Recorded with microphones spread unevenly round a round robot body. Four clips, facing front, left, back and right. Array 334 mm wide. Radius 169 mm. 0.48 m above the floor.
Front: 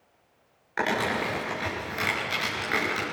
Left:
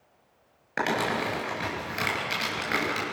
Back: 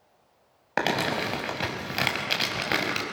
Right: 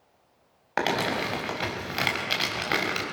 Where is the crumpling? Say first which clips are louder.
Right 1 dB, even; 175° right, 4 m.